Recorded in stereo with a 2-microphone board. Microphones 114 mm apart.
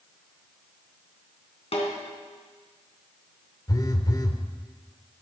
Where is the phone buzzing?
35° left (ahead or behind), 1.0 m.